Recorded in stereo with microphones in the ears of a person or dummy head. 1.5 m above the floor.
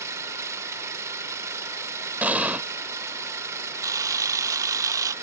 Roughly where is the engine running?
Centre.